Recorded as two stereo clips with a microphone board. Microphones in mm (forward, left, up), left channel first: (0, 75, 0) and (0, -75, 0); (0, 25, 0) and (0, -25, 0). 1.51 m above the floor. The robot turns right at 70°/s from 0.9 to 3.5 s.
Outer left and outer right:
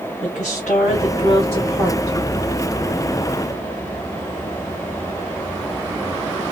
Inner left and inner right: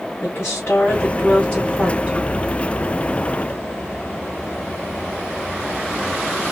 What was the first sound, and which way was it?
A woman speaking, 115° left.